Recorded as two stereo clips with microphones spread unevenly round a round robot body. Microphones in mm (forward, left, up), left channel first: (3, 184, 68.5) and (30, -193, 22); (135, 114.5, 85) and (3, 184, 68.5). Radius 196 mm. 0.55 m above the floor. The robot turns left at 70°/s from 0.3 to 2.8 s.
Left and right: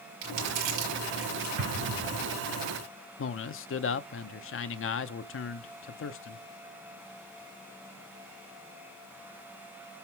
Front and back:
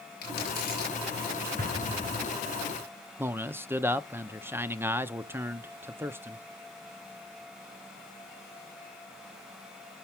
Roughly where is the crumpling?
Ahead right.